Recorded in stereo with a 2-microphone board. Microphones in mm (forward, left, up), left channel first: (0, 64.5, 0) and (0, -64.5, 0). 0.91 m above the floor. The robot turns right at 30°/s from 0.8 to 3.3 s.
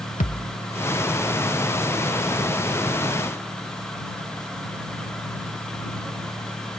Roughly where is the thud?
Left.